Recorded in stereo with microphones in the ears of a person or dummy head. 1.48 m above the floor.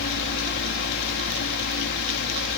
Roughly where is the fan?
Left.